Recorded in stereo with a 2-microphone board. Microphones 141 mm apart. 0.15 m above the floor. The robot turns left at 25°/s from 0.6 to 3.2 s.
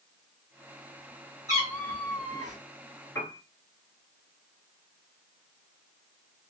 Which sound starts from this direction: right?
A cat meowing, at 1.5 s.